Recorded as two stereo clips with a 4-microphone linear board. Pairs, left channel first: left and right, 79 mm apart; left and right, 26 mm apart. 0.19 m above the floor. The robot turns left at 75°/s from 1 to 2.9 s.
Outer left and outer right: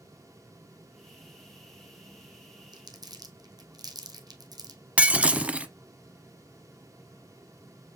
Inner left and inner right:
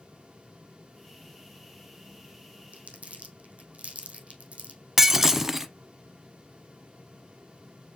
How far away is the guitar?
I don't hear a guitar.